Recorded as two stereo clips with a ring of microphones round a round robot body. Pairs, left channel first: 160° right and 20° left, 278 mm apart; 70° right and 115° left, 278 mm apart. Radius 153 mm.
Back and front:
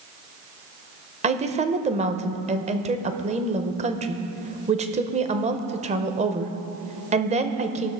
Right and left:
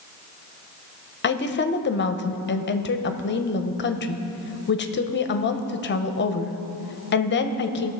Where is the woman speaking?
35° right, 0.9 m.